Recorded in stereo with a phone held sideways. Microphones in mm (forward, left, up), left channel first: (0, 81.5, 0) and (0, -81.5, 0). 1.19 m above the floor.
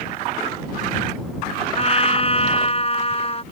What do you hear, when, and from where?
1.8 s a trumpet: 40° left (ahead or behind)